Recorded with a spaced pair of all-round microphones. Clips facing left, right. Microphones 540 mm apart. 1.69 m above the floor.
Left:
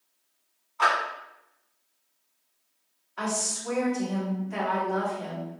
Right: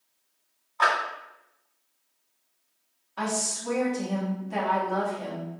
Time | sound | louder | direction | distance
0.8 | a clap | right 1 dB | 35° left (ahead or behind) | 1.9 m
3.2 | a woman speaking | right 1 dB | 60° right (ahead or behind) | 1.3 m